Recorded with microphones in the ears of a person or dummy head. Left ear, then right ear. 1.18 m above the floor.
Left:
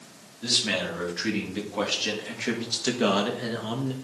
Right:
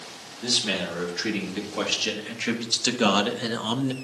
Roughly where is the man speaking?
Centre.